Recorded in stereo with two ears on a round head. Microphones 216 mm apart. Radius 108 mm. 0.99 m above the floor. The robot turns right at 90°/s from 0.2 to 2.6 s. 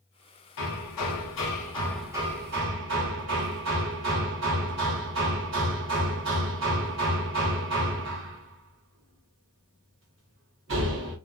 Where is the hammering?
50° left, 1.0 m; by 11.2 s 125° right, 1.0 m.